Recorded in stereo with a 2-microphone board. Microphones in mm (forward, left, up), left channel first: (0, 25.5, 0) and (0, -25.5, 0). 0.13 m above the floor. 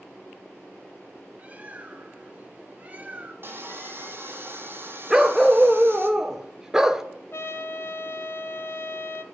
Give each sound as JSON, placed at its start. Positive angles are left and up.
{"t": 1.4, "sound": "a bird", "side_deg": -30, "distance_m": 0.8}
{"t": 3.4, "sound": "sawing", "side_deg": -45, "distance_m": 1.2}
{"t": 5.1, "sound": "a dog barking", "side_deg": -10, "distance_m": 0.6}
{"t": 7.3, "sound": "a trumpet", "side_deg": 55, "distance_m": 0.7}